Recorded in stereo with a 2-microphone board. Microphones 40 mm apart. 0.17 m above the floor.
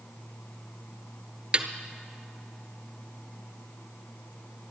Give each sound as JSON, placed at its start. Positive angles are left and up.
{"t": 1.5, "sound": "a snare drum", "side_deg": -30, "distance_m": 1.0}